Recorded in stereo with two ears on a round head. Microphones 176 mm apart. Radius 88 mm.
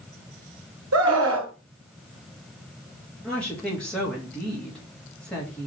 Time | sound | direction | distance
0.9 | a scream | 75° right (ahead or behind) | 2.5 m
3.2 | a woman speaking | 5° left (ahead or behind) | 2.5 m